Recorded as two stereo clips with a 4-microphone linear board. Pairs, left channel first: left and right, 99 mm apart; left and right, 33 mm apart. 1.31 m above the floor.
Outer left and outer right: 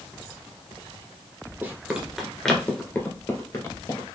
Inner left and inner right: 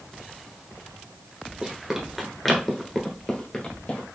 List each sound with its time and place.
1.6 s running footsteps: 20° right (ahead or behind), 1.3 m; by 4.1 s 45° left (ahead or behind), 1.7 m